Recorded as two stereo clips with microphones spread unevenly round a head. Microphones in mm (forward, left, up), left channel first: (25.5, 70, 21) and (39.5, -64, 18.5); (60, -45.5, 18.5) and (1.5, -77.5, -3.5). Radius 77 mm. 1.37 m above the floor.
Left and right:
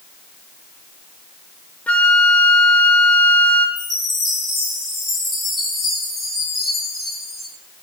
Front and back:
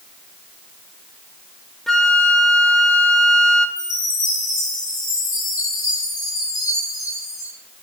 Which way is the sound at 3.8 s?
5° left.